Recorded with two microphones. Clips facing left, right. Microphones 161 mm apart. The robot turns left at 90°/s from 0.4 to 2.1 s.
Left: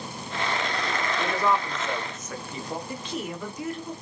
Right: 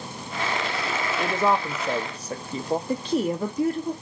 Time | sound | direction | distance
1.2 | a woman speaking | 15° right (ahead or behind) | 0.6 m
2.9 | a woman speaking | 35° right (ahead or behind) | 0.7 m